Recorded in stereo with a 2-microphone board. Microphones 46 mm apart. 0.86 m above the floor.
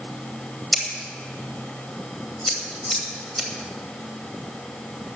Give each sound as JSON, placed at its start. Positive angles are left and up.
{"t": 0.7, "sound": "scissors", "side_deg": 0, "distance_m": 2.0}